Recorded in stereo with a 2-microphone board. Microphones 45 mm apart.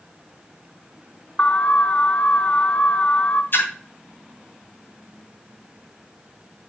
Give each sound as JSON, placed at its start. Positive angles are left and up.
{"t": 1.4, "sound": "an alarm", "side_deg": 35, "distance_m": 0.6}
{"t": 3.5, "sound": "a splash", "side_deg": 60, "distance_m": 2.5}